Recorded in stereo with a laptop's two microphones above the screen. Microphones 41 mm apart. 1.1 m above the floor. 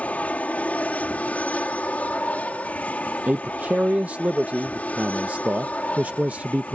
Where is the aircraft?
35° left (ahead or behind).